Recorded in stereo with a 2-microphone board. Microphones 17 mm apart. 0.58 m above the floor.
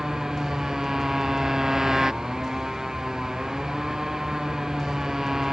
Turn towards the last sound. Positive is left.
turn(degrees=-30)  # may be behind; listen again after turning